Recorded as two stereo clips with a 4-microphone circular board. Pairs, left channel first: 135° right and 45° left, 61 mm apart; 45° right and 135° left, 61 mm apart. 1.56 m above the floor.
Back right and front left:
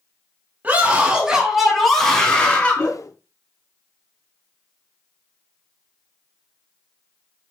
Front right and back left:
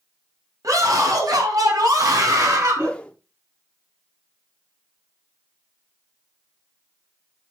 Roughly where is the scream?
Left.